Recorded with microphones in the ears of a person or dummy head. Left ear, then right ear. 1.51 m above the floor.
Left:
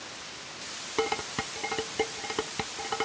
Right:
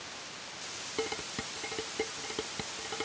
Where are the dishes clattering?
35° left (ahead or behind).